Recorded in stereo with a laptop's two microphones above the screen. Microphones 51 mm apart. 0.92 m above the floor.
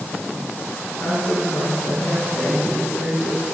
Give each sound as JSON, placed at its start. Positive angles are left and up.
{"t": 1.0, "sound": "a woman speaking", "side_deg": 45, "distance_m": 10.0}